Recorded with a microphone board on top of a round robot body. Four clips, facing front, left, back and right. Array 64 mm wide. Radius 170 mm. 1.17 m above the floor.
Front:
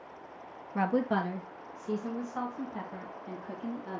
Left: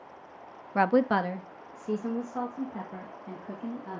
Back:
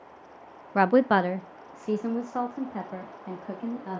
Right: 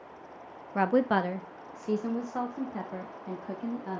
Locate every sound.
0.8 s a woman speaking: 150° left, 0.6 m; by 4.0 s 160° right, 2 m